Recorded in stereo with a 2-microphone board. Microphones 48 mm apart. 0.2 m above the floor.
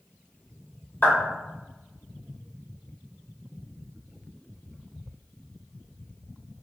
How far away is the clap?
About 1.8 m.